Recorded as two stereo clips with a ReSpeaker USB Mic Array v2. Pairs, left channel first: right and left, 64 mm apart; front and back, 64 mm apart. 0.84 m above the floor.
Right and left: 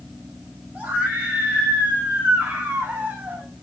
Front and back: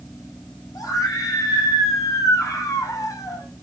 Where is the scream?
25° left, 8.5 m.